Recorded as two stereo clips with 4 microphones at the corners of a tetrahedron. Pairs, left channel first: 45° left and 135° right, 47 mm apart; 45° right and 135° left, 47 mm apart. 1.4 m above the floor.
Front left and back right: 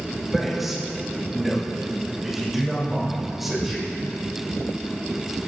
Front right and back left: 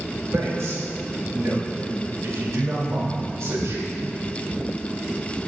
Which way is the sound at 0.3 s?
140° left.